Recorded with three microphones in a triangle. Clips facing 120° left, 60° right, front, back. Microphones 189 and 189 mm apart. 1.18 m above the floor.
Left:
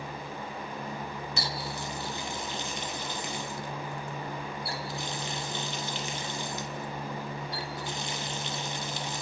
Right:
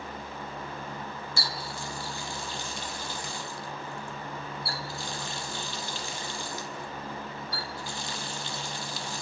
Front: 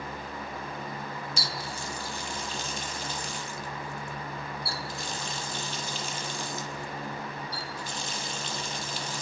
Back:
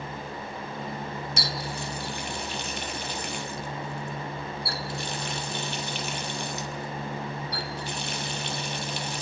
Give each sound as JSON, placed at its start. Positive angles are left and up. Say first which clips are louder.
{"t": 1.4, "sound": "a running tap", "louder": "left 3 dB, back 4 dB", "azimuth_deg": -170, "distance_m": 0.9}